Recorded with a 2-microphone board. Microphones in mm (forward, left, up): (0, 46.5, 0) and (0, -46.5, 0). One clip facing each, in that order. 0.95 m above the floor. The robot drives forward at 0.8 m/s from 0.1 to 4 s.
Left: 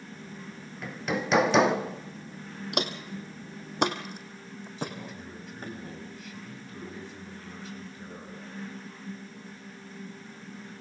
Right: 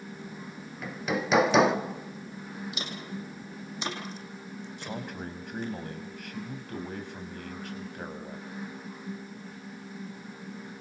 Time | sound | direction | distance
0.8 | hammering | centre (ahead or behind) | 1.1 m
2.7 | footsteps | 65° left (ahead or behind) | 2.5 m
4.8 | a man speaking | 65° right (ahead or behind) | 6 m